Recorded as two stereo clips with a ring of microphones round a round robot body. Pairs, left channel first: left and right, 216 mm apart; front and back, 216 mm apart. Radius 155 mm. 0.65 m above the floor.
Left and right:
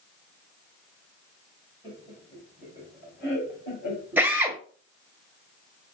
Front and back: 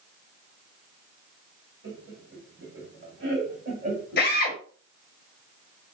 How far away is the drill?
About 1.2 m.